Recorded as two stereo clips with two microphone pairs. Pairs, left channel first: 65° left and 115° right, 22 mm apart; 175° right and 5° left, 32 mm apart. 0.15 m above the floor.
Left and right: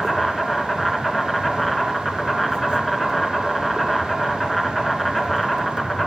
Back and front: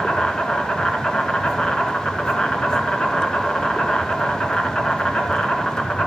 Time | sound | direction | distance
0.0 | an insect | 140° left | 1.9 m